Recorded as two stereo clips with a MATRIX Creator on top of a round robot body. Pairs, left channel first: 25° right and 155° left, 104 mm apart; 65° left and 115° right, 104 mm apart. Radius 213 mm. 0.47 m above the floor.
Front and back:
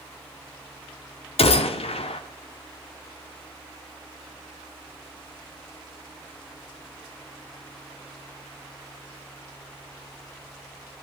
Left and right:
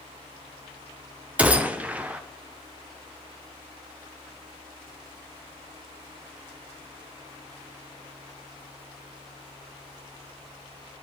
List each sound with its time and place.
1.4 s a gunshot: 35° right, 0.8 m